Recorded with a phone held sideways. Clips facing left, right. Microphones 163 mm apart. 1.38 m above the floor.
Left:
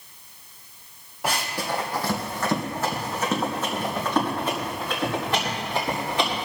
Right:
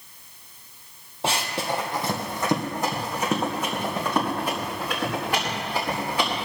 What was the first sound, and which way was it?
Running footsteps, 25° right (ahead or behind).